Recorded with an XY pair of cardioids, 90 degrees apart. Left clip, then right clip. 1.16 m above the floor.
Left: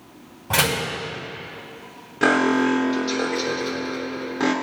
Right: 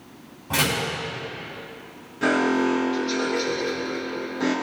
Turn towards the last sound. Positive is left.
turn(degrees=65)